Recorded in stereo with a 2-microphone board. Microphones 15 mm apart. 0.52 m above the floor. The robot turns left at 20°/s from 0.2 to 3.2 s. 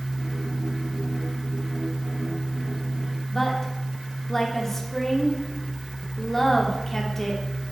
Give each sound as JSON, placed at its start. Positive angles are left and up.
{"t": 3.3, "sound": "a woman speaking", "side_deg": 20, "distance_m": 1.3}